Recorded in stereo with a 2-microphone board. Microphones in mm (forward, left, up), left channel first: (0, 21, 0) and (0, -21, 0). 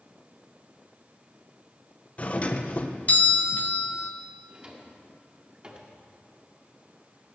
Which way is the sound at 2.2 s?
30° left (ahead or behind).